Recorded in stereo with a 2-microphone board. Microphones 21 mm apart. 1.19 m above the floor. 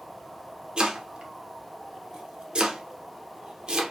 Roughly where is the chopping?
Right.